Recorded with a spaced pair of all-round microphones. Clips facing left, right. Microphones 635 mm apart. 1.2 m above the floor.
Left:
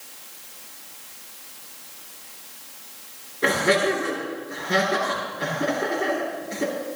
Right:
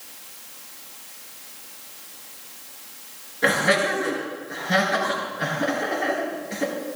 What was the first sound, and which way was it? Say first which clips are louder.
Laughter: left 2 dB; 20° right (ahead or behind).